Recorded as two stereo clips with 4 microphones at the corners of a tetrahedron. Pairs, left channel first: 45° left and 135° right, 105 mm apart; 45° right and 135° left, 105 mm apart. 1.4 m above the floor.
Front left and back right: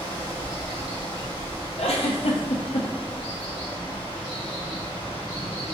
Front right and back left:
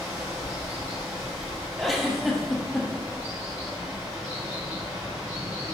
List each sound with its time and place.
0.0 s running water: 75° left, 1.5 m
1.8 s a giggle: 45° left, 0.6 m